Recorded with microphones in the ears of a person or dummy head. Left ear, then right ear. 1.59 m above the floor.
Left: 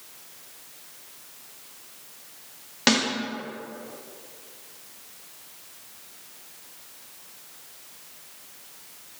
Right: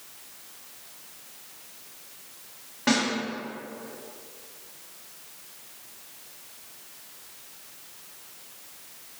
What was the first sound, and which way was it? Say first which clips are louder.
A snare drum: left 3 dB; 80° left.